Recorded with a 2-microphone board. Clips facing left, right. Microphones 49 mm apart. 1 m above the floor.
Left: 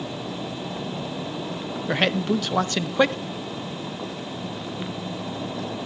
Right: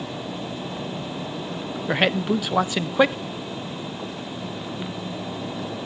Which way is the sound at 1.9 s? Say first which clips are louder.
Right 1 dB; 10° right (ahead or behind).